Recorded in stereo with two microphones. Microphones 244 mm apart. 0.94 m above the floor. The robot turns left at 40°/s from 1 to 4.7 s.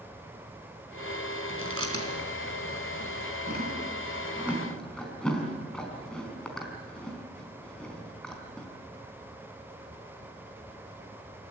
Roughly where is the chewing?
Right.